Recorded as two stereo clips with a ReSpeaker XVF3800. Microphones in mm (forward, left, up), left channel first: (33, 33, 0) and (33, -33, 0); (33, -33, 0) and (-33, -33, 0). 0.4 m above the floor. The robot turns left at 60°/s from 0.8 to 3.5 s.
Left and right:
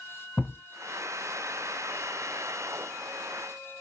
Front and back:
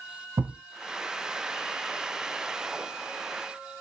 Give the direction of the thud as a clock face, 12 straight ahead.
7 o'clock.